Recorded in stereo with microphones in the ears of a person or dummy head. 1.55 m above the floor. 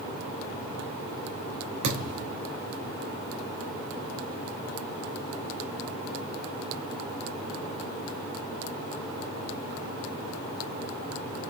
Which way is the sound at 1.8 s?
50° right (ahead or behind).